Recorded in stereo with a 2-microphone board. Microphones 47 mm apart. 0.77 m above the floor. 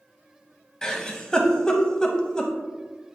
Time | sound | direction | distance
0.8 | a giggle | 15° left (ahead or behind) | 0.8 m